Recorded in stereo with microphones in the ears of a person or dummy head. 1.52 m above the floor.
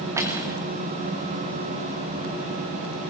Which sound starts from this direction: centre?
Cutlery clinking, at 0.2 s.